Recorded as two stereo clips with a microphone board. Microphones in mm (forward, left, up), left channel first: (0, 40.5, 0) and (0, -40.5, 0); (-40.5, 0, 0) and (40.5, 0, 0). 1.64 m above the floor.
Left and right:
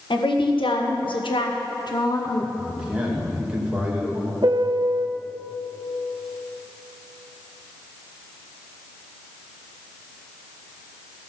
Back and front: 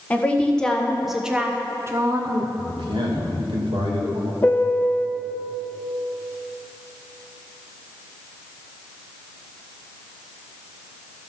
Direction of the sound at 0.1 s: 105° left.